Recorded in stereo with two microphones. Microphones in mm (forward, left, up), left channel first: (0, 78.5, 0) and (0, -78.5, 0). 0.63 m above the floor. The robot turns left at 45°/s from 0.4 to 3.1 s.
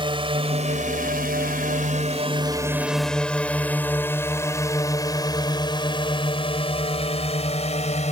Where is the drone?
35° right (ahead or behind); by 8.1 s 50° left (ahead or behind).